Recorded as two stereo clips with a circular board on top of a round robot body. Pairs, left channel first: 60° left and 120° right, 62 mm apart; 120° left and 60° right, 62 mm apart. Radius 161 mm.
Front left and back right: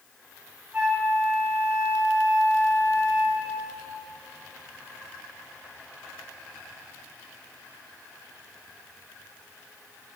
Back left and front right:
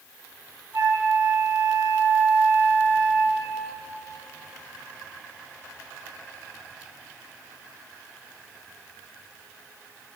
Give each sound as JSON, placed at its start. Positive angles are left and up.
{"t": 0.7, "sound": "a flute", "azimuth_deg": -65, "distance_m": 2.5}